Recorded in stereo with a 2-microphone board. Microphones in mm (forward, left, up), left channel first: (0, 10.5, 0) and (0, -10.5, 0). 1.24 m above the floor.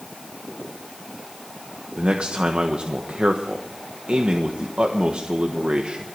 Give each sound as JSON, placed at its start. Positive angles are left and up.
{"t": 2.0, "sound": "a man speaking", "side_deg": -70, "distance_m": 1.3}